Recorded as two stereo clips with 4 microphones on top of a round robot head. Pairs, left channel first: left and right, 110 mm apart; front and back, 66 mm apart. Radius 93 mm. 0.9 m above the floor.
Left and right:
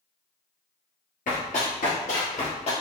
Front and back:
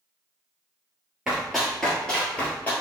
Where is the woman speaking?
No woman speaking in this recording.